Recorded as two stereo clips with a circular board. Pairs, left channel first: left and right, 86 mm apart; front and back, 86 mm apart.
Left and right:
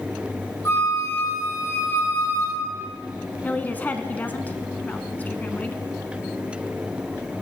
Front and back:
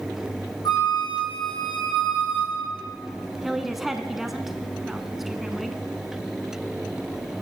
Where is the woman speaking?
100° left, 1.1 m.